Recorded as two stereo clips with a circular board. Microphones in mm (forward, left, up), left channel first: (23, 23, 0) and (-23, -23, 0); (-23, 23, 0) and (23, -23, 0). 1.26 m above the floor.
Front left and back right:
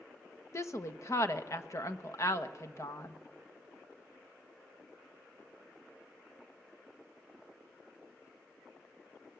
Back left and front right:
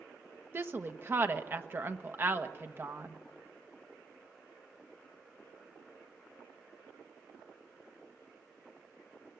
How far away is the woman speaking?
About 1.2 m.